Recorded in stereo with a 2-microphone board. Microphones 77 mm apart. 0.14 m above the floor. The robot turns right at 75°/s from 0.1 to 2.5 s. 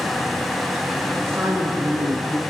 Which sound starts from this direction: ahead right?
A man speaking, at 1.2 s.